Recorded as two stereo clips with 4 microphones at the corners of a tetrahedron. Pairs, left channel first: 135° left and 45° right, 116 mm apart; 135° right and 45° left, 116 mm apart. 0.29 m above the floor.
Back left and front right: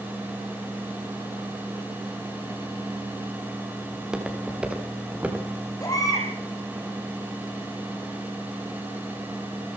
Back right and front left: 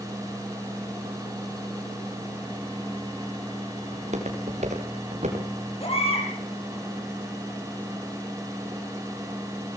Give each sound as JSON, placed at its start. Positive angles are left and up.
{"t": 3.9, "sound": "footsteps", "azimuth_deg": 40, "distance_m": 7.0}
{"t": 5.8, "sound": "a baby crying", "azimuth_deg": -165, "distance_m": 9.0}